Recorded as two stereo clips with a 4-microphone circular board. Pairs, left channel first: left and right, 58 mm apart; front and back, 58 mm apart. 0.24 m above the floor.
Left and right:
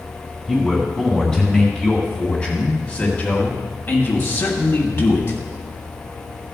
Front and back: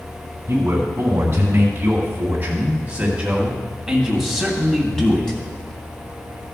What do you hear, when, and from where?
0.5 s a man speaking: straight behind, 2.5 m; by 5.4 s 80° left, 2 m